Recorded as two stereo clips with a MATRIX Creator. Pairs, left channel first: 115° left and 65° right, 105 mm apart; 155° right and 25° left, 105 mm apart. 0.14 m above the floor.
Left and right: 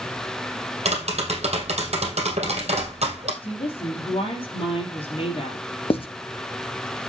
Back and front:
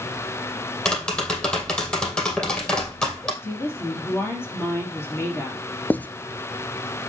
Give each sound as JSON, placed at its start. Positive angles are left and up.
{"t": 0.8, "sound": "tapping", "azimuth_deg": -75, "distance_m": 2.5}
{"t": 3.4, "sound": "a woman speaking", "azimuth_deg": 135, "distance_m": 4.0}
{"t": 5.9, "sound": "writing", "azimuth_deg": 130, "distance_m": 0.7}